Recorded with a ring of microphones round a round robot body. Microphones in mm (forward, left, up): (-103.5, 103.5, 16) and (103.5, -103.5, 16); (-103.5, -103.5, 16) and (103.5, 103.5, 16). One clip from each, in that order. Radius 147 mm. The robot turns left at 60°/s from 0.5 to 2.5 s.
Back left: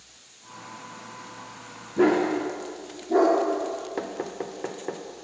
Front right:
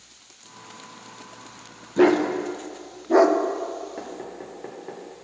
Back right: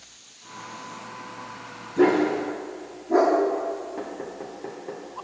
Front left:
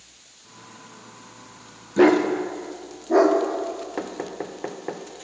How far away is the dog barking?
About 0.6 m.